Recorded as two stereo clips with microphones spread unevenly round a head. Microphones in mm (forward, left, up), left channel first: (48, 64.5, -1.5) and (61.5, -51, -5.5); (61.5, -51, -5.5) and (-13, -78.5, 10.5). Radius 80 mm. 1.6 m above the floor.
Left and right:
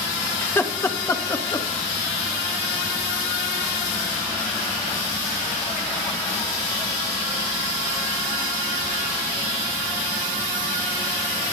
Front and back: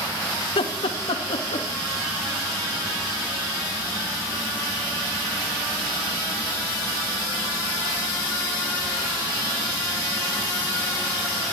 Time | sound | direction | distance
0.4 | laughter | 25° left | 2 m